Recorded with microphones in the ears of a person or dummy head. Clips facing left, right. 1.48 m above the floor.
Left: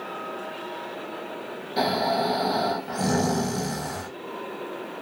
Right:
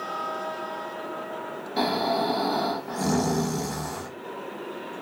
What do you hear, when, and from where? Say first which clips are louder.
1.8 s snoring: left 1 dB; 15° left (ahead or behind), 0.9 m